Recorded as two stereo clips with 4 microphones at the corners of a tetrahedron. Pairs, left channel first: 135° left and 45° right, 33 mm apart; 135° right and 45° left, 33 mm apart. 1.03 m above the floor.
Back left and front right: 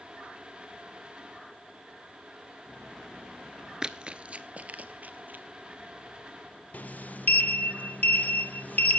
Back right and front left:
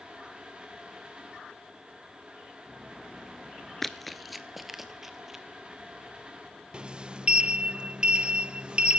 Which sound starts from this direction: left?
A sliding door, at 6.7 s.